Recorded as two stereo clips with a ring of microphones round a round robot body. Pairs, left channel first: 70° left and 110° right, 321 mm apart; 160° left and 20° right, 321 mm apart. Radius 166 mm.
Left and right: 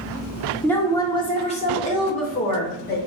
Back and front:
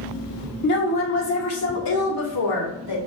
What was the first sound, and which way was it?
A woman speaking, 150° left.